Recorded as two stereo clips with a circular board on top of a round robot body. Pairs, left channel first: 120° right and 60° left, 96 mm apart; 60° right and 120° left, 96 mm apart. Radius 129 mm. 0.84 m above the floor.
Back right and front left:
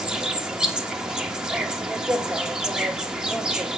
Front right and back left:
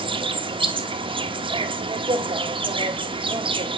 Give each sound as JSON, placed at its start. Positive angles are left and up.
{"t": 0.0, "sound": "an insect", "azimuth_deg": 140, "distance_m": 1.6}